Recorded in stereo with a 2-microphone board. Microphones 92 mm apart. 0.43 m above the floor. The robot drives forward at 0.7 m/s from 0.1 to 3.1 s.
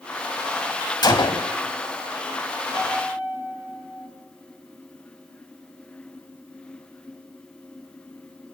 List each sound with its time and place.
1.0 s a gunshot: 50° left (ahead or behind), 0.8 m; by 1.5 s 75° left (ahead or behind), 0.6 m
2.7 s a piano: 75° left (ahead or behind), 5.5 m